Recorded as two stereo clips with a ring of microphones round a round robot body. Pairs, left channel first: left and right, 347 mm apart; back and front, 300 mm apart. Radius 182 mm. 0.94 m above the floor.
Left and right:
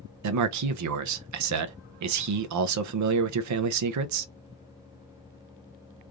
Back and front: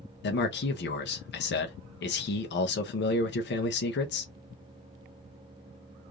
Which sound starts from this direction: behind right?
A man speaking, at 0.2 s.